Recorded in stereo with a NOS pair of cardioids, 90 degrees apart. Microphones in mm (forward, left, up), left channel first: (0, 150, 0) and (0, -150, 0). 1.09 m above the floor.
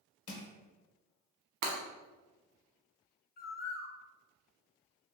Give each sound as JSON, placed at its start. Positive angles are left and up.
{"t": 0.3, "sound": "crushing", "azimuth_deg": 50, "distance_m": 0.8}
{"t": 1.6, "sound": "breaking glass", "azimuth_deg": -65, "distance_m": 1.2}
{"t": 3.4, "sound": "a bird", "azimuth_deg": 30, "distance_m": 0.6}